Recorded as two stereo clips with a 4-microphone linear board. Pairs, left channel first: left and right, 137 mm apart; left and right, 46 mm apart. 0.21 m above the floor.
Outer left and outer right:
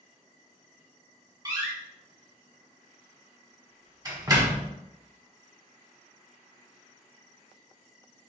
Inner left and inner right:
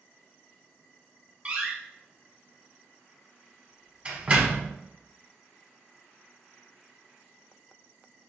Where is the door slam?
30° right (ahead or behind), 1.2 m.